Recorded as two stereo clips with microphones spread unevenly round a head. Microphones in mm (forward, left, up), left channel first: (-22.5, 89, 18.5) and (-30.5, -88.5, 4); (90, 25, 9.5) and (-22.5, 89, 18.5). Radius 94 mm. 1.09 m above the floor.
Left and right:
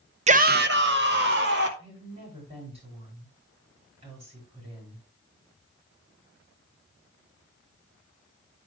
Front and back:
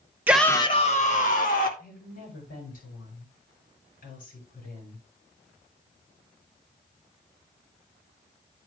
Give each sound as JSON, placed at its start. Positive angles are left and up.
{"t": 0.3, "sound": "a shout", "azimuth_deg": -130, "distance_m": 0.6}
{"t": 1.8, "sound": "a woman speaking", "azimuth_deg": -30, "distance_m": 8.0}